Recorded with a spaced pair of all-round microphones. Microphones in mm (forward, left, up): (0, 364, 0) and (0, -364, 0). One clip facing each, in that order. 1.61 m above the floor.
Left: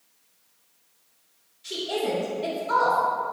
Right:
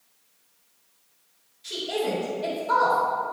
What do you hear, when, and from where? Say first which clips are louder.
1.6 s a woman speaking: even; 5° right (ahead or behind), 2 m